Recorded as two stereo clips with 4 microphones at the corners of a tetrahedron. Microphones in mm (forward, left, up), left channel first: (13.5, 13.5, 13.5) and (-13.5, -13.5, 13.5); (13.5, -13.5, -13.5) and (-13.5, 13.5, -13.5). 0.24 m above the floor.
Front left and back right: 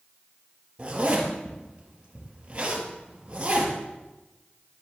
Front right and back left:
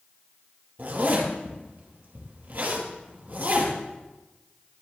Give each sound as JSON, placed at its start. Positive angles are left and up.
{"t": 0.8, "sound": "a zipper", "azimuth_deg": 165, "distance_m": 6.0}